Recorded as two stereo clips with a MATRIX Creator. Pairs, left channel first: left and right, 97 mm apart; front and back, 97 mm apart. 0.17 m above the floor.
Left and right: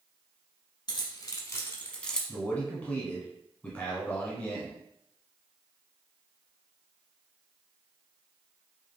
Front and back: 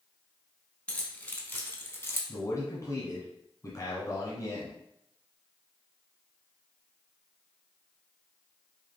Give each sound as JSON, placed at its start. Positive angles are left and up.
{"t": 0.9, "sound": "keys jangling", "azimuth_deg": 75, "distance_m": 1.0}
{"t": 2.3, "sound": "a man speaking", "azimuth_deg": 20, "distance_m": 1.3}